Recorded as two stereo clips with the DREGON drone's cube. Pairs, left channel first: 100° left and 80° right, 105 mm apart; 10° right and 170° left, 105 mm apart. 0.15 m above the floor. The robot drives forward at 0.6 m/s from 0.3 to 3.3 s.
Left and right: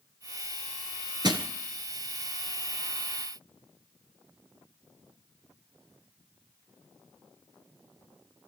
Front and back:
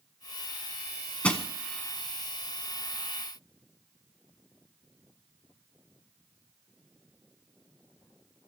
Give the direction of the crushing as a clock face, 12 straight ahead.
3 o'clock.